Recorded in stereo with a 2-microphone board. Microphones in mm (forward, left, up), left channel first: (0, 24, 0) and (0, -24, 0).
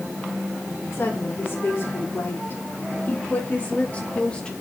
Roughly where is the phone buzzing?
I don't hear a phone buzzing.